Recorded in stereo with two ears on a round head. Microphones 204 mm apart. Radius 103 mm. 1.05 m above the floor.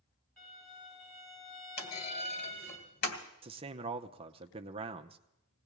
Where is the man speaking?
25° right (ahead or behind), 0.7 m.